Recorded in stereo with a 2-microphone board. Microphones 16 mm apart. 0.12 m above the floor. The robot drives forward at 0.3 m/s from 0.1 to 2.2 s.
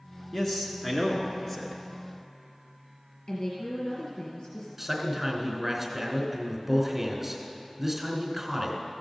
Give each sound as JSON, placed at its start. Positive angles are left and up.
{"t": 0.3, "sound": "a man speaking", "side_deg": 20, "distance_m": 1.4}
{"t": 3.3, "sound": "a woman speaking", "side_deg": 50, "distance_m": 1.7}
{"t": 4.8, "sound": "a man speaking", "side_deg": -20, "distance_m": 1.3}